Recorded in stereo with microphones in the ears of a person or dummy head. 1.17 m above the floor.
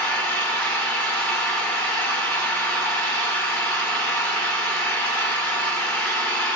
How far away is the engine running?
About 1.1 m.